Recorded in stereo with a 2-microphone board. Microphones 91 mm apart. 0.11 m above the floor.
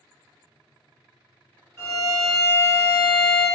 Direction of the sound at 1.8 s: 30° right (ahead or behind).